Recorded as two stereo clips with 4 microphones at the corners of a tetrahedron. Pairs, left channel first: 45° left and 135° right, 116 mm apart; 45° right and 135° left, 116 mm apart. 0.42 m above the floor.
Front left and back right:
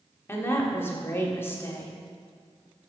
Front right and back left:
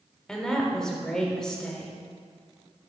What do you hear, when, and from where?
0.3 s a woman speaking: 30° left, 1.0 m